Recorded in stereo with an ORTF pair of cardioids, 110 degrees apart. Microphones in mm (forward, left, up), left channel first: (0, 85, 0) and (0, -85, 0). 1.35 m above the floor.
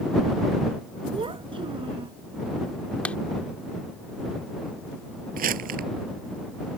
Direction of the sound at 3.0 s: 10° left.